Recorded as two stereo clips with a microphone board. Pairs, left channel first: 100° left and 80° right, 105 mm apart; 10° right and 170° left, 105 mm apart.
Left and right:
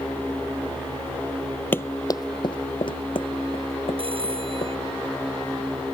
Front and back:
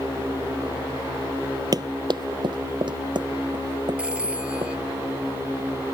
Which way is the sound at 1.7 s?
160° left.